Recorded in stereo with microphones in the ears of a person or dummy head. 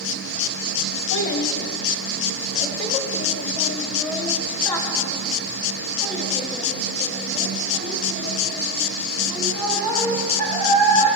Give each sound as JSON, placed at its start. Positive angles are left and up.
{"t": 1.1, "sound": "a child speaking", "side_deg": 70, "distance_m": 1.8}